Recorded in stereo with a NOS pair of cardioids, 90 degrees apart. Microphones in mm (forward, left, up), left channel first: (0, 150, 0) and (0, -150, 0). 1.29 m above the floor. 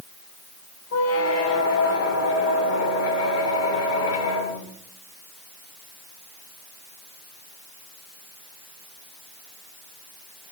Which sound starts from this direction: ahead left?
A squeak, at 0.9 s.